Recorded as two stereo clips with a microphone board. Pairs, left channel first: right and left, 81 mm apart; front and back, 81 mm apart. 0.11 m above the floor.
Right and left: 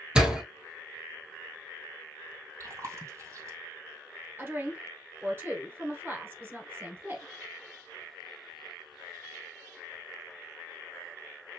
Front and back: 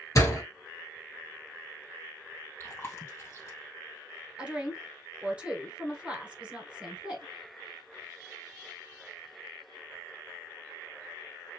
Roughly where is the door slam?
Ahead.